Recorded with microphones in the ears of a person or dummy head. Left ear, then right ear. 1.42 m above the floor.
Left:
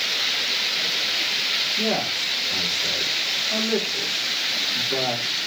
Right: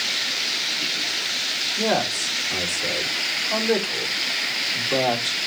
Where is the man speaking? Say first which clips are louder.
Right 1 dB; 60° right (ahead or behind), 3 m.